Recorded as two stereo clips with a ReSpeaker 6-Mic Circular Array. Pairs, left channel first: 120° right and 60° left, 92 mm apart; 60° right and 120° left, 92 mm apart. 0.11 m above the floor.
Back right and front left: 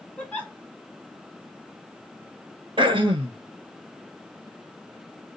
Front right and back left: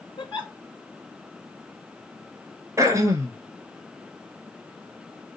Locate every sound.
0.2 s a giggle: 45° right, 0.8 m
2.8 s throat clearing: 70° left, 0.6 m